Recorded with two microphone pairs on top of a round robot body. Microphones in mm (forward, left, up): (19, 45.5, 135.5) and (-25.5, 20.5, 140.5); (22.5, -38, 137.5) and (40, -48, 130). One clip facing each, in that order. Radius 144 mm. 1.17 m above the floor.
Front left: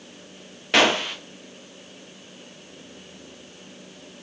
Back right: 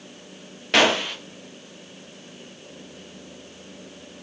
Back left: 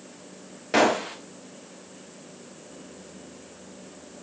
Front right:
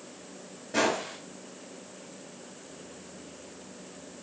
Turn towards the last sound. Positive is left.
turn(degrees=120)